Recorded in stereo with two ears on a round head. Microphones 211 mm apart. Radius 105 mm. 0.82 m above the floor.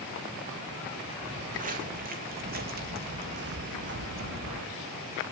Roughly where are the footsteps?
Right.